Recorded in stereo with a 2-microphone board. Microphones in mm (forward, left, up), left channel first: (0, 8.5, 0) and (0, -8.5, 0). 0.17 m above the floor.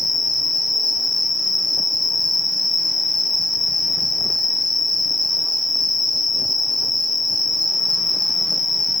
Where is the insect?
15° left (ahead or behind), 1.1 m.